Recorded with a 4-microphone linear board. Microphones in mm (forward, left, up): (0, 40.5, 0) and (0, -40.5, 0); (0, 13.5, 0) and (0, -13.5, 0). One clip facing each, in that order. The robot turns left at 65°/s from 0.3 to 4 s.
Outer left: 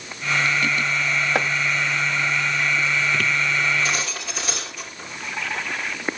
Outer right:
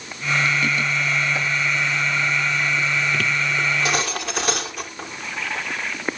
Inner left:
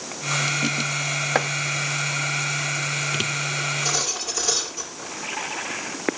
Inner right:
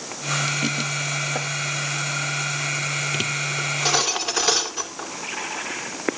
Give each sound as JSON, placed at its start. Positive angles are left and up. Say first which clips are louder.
{"t": 1.4, "sound": "chopping", "louder": "outer left 3 dB, inner left 5 dB", "side_deg": 65, "distance_m": 0.9}
{"t": 3.6, "sound": "cutlery clinking", "louder": "outer right 1 dB, inner right 3 dB", "side_deg": -65, "distance_m": 2.5}